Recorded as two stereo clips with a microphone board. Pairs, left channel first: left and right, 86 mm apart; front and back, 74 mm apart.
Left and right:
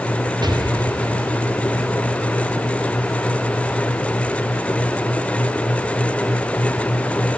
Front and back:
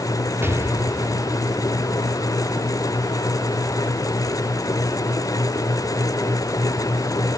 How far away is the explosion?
About 2 m.